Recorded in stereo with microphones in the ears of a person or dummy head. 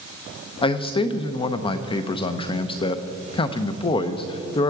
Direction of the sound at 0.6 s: 25° left (ahead or behind).